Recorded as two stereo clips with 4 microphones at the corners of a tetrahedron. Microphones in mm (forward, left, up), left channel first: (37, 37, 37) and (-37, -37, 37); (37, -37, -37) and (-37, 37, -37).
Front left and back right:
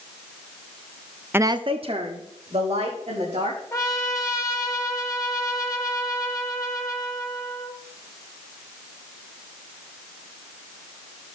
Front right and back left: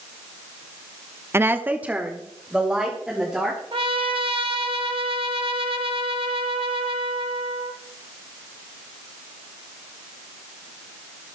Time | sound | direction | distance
1.3 | a woman speaking | 170° left | 0.5 m
3.7 | a trumpet | 110° left | 1.5 m